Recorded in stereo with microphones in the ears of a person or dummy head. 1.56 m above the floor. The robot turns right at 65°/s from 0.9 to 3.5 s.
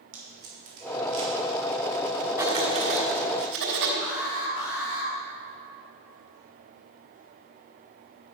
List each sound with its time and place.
0.1 s tape being pulled: 85° right, 4 m; by 1.3 s 55° right (ahead or behind), 4 m
2.4 s writing: 165° right, 3 m; by 3.9 s 90° right, 3 m
4.0 s an alarm: 75° left (ahead or behind), 3.5 m